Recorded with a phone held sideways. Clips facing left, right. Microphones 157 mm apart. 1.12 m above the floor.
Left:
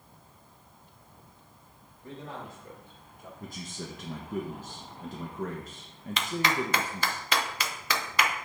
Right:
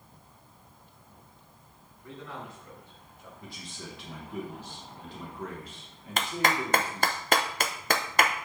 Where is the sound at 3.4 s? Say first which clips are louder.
Left 4 dB; 45° left (ahead or behind), 1.0 m.